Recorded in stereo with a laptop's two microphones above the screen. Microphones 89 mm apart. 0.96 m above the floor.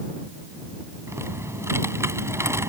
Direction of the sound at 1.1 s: 35° right (ahead or behind).